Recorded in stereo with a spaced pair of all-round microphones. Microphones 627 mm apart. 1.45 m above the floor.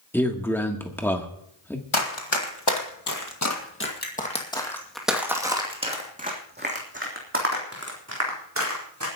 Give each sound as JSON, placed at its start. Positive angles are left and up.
{"t": 0.1, "sound": "a man speaking", "side_deg": 5, "distance_m": 1.5}
{"t": 1.9, "sound": "running footsteps", "side_deg": 50, "distance_m": 2.0}